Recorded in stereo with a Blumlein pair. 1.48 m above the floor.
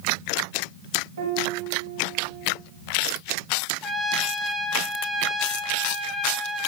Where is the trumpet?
10° left, 0.7 m.